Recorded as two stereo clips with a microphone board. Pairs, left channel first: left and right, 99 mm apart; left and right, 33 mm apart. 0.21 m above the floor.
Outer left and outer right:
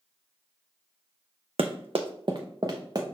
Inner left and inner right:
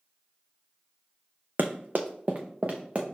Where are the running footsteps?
70° right (ahead or behind), 0.5 m; by 3.0 s 40° right (ahead or behind), 1.1 m.